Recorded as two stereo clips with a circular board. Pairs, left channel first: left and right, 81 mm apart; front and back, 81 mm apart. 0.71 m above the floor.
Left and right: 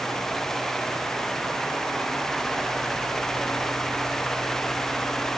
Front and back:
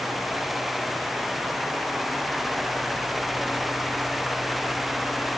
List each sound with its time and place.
Only background noise.